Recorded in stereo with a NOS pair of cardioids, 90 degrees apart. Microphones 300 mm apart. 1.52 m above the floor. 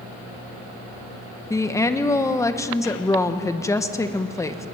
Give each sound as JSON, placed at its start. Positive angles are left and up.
{"t": 1.5, "sound": "a woman speaking", "azimuth_deg": 10, "distance_m": 1.4}